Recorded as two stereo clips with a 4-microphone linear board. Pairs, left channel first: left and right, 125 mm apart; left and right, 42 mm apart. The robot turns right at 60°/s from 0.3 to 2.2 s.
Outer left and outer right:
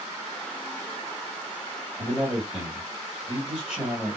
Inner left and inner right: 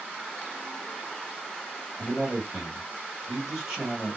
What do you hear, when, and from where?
2.0 s a man speaking: 20° right (ahead or behind), 1.8 m; by 4.2 s 10° right (ahead or behind), 1.8 m